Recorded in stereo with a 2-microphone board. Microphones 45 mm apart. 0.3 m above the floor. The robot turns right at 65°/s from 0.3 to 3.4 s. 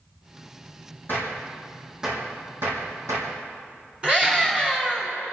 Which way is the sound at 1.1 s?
50° left (ahead or behind).